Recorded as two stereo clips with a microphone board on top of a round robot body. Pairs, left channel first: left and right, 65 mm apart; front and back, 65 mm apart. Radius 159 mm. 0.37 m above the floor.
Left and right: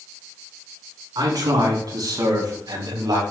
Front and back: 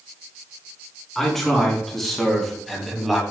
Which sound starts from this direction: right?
A man speaking, at 1.1 s.